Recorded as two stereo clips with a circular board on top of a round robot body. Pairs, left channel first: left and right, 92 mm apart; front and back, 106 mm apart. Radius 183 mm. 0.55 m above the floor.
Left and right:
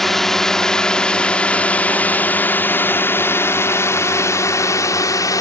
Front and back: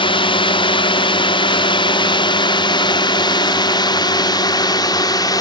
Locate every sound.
0.0 s a drone: 5° left; by 5.4 s 45° left